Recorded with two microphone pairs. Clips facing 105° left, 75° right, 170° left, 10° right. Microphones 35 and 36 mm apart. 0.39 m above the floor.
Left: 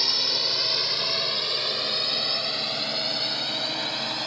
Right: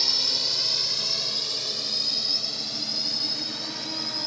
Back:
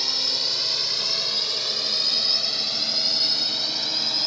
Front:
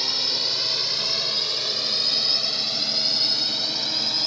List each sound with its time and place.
0.0 s a drone: 60° left; by 4.3 s 80° left